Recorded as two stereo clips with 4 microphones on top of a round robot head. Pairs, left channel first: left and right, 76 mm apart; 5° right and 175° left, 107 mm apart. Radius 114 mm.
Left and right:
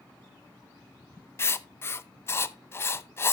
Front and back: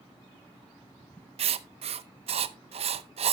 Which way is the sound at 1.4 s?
150° left.